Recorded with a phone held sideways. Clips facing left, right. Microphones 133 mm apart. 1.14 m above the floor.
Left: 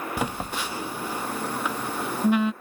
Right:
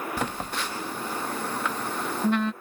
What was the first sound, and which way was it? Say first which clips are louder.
A phone buzzing: left 1 dB; 10° left (ahead or behind).